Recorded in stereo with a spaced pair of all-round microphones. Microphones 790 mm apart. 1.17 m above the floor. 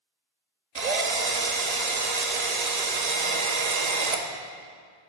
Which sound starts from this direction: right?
A drill, at 0.8 s.